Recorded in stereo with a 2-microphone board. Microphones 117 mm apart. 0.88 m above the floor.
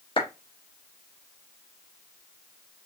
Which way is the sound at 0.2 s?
50° left (ahead or behind).